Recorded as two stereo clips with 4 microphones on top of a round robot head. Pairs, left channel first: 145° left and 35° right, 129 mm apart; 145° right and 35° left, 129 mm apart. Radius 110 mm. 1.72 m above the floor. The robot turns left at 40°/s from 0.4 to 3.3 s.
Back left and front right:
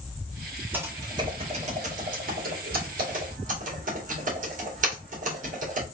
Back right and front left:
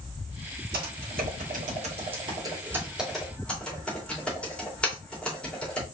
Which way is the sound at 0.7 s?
40° left.